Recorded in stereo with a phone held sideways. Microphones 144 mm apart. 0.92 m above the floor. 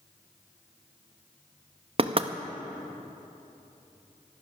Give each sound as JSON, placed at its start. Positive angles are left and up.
{"t": 2.0, "sound": "knocking", "side_deg": -40, "distance_m": 0.6}